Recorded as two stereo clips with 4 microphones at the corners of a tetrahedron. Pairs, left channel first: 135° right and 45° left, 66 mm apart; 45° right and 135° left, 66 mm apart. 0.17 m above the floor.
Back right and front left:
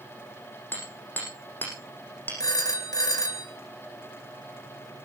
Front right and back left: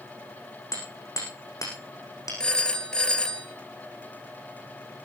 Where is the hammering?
75° right, 8.5 m.